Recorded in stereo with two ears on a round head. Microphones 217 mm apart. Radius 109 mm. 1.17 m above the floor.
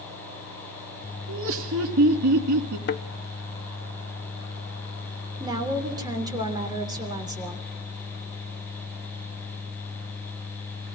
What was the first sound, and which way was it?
Laughter, 55° right (ahead or behind).